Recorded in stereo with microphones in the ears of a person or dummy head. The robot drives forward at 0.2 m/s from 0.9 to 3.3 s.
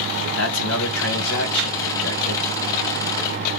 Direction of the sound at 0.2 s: 70° left (ahead or behind).